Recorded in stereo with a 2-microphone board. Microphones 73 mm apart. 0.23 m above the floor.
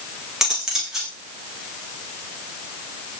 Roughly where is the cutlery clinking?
Centre.